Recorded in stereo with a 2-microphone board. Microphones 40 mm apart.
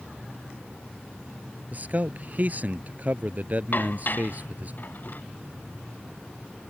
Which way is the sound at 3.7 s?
45° left (ahead or behind).